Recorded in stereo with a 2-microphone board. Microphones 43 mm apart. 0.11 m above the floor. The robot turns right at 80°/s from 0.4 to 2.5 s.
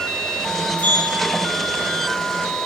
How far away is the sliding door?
About 1.5 m.